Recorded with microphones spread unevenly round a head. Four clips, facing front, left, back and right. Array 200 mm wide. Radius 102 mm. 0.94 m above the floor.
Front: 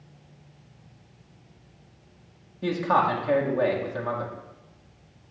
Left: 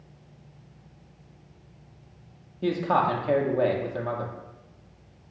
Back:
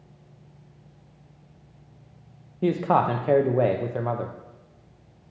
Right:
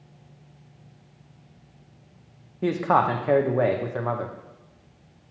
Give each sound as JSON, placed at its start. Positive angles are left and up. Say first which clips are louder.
{"t": 2.6, "sound": "a man speaking", "louder": "right 2 dB, back 1 dB", "azimuth_deg": -150, "distance_m": 0.6}